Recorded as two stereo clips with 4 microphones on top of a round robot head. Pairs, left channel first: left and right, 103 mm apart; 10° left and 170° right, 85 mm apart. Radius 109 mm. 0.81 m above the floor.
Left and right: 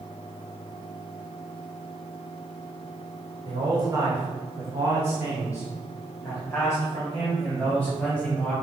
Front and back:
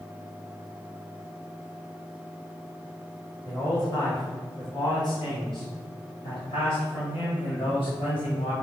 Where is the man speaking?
45° right, 3 m; by 8.5 s 5° left, 4.5 m.